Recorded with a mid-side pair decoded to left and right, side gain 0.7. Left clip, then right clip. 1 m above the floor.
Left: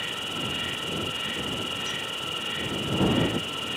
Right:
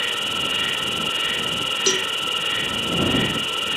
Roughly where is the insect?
Ahead right.